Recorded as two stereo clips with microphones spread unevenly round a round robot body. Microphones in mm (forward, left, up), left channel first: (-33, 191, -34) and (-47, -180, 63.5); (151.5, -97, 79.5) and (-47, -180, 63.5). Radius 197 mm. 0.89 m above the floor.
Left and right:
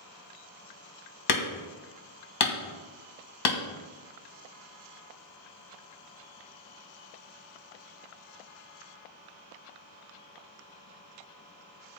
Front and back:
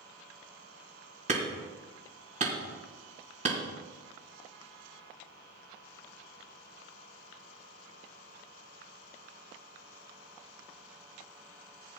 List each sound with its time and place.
1.3 s hammering: 130° left, 1.7 m